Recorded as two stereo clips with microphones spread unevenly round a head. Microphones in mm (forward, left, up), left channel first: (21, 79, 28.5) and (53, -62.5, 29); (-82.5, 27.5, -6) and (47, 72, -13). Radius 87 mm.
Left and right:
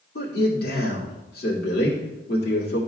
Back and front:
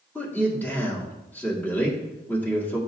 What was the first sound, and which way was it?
A man speaking, 120° left.